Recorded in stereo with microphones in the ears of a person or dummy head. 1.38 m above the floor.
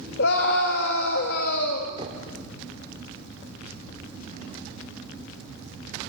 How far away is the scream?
About 2.5 m.